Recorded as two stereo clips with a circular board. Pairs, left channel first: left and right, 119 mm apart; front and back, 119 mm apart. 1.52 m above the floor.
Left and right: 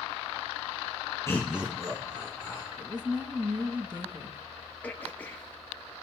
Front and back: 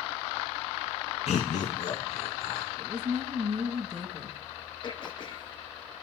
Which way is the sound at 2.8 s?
145° right.